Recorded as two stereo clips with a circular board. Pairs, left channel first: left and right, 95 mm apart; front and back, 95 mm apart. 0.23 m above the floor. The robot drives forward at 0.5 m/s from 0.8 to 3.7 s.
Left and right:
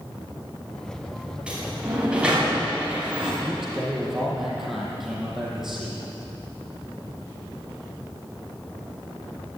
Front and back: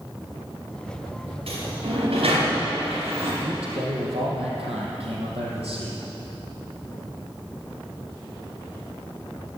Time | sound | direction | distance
1.5 | a sliding door | 170° right | 8.5 m
3.4 | a man speaking | 175° right | 6 m